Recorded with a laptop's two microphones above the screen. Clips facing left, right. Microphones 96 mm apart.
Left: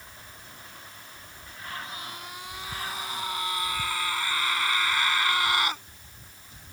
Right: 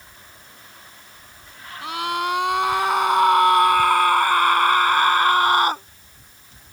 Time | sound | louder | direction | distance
1.8 | a scream | right 16 dB | 80° right | ?